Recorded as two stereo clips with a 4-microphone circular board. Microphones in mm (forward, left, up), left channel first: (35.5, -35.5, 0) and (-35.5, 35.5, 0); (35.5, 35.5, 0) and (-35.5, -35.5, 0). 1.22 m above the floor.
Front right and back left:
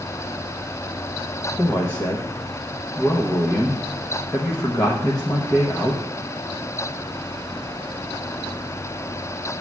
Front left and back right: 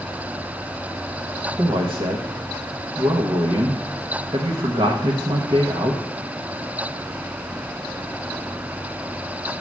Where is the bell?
I don't hear a bell.